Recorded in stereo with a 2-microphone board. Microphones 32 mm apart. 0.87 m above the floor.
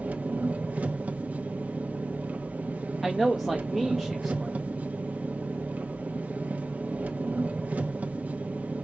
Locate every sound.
0.0 s an engine running: 60° right (ahead or behind), 0.7 m
3.0 s a man speaking: centre (ahead or behind), 0.9 m